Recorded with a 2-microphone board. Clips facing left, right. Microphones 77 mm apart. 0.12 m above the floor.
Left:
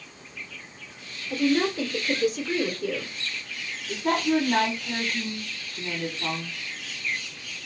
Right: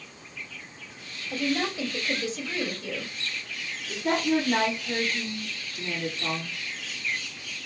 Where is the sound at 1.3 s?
50° left (ahead or behind), 2.5 m.